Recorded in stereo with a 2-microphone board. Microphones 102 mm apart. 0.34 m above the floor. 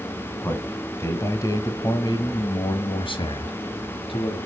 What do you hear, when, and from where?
0.4 s a man speaking: 20° left (ahead or behind), 2.5 m; by 4.4 s 65° left (ahead or behind), 2.5 m